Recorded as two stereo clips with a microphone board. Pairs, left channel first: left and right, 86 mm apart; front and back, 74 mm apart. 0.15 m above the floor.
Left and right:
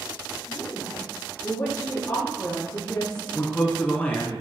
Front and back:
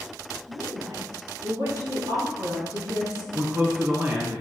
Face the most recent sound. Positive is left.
turn(degrees=155)